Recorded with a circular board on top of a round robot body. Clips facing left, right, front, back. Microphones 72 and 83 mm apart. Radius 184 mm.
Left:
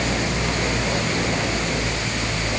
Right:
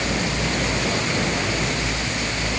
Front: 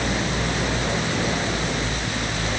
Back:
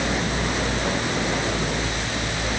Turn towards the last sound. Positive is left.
No sound to turn to.